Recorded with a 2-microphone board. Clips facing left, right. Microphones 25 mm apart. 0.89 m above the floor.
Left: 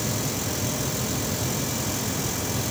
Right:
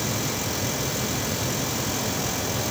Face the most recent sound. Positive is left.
No sound to turn to.